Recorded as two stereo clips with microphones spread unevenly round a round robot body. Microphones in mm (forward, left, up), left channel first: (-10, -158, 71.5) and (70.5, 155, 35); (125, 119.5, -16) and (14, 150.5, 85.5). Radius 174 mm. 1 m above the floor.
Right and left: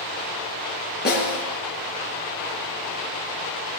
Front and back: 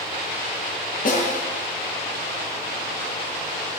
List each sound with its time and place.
1.1 s a snare drum: 40° right, 6.5 m